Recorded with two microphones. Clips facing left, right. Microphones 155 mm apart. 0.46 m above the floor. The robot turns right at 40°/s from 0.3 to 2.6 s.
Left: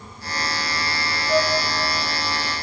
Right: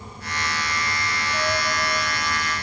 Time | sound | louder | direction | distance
1.3 | a flute | left 7 dB | 55° left (ahead or behind) | 2 m